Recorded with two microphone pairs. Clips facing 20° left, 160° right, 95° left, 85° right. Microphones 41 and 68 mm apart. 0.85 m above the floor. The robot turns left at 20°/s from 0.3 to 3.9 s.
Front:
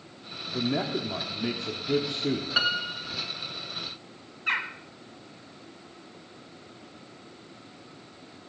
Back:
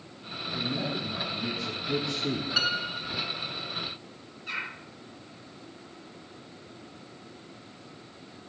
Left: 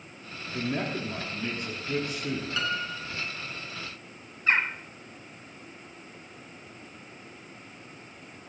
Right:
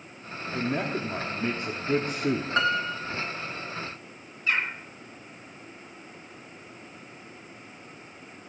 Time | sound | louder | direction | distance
0.5 | a man speaking | front 4 dB, right 2 dB | 10° right | 1.4 m
2.6 | a piano | front 1 dB, right 6 dB | 50° right | 1.0 m
4.5 | a bird | front 6 dB, left 2 dB | 45° left | 1.5 m